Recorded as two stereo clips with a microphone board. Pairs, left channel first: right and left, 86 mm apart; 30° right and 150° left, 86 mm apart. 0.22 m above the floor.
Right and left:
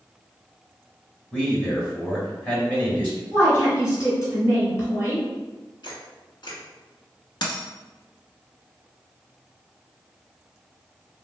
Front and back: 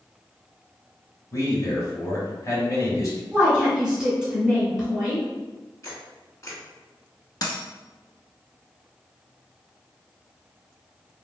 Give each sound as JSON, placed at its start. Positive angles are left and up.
{"t": 1.3, "sound": "a man speaking", "azimuth_deg": -30, "distance_m": 1.3}
{"t": 3.3, "sound": "a woman speaking", "azimuth_deg": -120, "distance_m": 1.4}
{"t": 5.8, "sound": "a camera shutter", "azimuth_deg": -80, "distance_m": 1.3}
{"t": 7.4, "sound": "a dropped coin", "azimuth_deg": -65, "distance_m": 0.7}